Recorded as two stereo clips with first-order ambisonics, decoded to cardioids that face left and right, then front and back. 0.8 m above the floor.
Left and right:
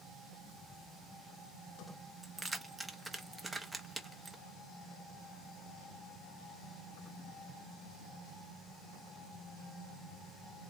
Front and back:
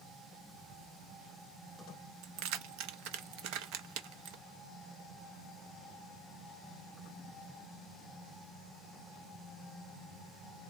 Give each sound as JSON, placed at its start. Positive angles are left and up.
{"t": 2.2, "sound": "keys jangling", "azimuth_deg": -175, "distance_m": 0.6}